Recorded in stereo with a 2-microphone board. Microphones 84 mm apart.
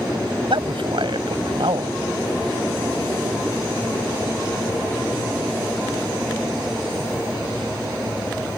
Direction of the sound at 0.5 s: 80° right.